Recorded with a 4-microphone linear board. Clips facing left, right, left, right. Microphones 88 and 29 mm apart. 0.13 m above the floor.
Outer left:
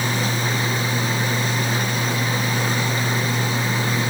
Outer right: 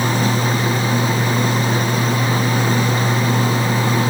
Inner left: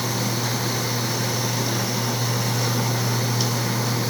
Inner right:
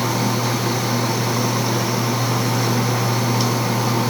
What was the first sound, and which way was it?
Only background noise.